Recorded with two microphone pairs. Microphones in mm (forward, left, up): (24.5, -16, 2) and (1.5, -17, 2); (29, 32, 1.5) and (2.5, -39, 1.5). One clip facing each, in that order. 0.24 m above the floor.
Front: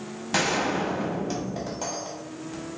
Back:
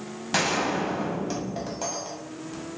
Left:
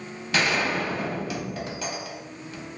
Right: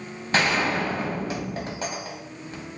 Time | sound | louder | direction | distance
0.3 | a gunshot | even, right 2 dB | 90° right | 0.8 m